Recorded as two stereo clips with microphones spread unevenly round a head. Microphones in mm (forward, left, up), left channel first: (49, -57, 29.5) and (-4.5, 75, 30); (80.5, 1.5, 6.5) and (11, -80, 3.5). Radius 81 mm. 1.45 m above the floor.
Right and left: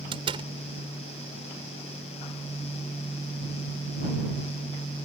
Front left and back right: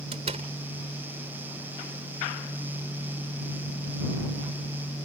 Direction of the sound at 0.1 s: 175° left.